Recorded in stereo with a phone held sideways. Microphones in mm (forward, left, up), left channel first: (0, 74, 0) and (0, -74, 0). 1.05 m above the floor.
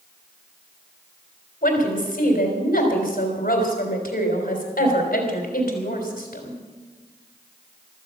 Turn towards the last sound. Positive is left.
turn(degrees=85)